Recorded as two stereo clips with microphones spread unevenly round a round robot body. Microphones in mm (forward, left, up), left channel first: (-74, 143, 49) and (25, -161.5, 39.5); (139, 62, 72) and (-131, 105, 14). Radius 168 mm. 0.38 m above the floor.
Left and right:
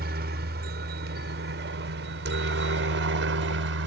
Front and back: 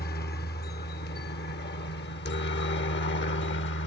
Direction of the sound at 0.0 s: 55° right.